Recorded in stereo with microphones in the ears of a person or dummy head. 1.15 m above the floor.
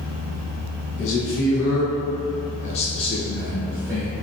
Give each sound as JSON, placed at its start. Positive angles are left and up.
{"t": 1.0, "sound": "a man speaking", "side_deg": 65, "distance_m": 1.3}